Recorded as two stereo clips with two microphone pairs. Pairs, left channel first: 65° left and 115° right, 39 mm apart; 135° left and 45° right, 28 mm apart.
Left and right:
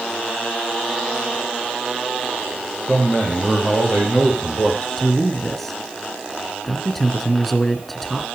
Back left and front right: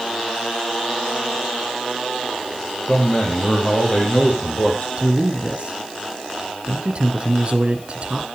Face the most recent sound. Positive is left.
turn(degrees=-15)